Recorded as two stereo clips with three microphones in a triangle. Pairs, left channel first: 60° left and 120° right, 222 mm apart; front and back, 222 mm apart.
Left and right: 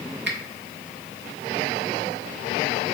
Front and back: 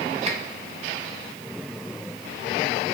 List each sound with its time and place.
0.3 s a finger snap: 130° right, 0.7 m